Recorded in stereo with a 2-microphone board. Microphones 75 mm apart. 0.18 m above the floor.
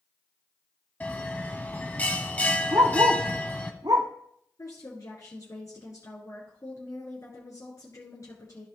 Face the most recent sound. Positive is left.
turn(degrees=45)  # may be behind; listen again after turning